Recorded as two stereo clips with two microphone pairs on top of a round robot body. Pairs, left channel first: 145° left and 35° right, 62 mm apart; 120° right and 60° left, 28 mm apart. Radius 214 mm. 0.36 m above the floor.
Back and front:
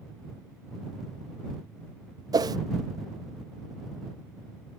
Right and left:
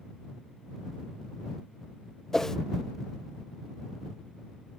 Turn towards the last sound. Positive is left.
turn(degrees=-50)